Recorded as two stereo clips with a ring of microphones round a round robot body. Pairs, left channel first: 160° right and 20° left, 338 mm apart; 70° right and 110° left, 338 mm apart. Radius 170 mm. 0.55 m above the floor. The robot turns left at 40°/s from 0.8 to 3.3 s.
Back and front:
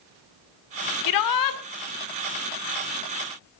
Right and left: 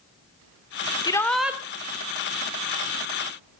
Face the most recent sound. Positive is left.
turn(degrees=125)